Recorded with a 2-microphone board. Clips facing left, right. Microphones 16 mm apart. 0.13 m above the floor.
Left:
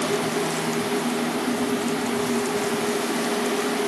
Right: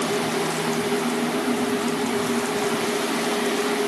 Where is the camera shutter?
No camera shutter in this recording.